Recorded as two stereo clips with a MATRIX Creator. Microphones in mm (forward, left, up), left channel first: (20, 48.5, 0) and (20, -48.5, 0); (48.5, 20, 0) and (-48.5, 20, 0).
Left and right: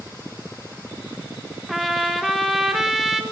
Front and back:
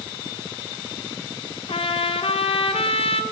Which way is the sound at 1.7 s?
5° right.